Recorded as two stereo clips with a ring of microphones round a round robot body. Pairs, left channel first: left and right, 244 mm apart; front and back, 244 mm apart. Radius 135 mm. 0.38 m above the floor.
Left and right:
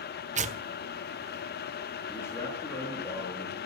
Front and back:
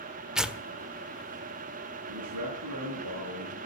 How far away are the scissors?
No scissors in this recording.